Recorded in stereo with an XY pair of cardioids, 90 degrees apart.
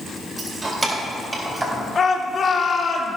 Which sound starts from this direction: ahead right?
Keys jangling, at 0.4 s.